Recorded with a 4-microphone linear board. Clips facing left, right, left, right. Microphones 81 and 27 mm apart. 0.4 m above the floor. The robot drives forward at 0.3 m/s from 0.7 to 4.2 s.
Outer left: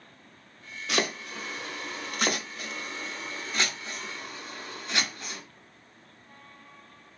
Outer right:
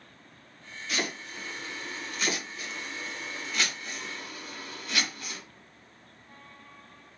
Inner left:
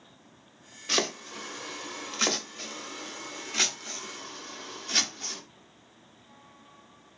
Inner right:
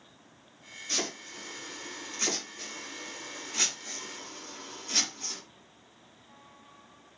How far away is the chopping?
About 0.6 m.